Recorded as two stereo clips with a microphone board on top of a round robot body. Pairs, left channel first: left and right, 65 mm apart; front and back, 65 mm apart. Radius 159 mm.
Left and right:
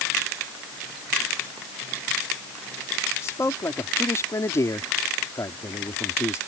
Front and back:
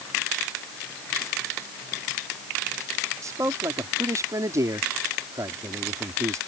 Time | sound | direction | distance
3.2 | a man speaking | 135° left | ?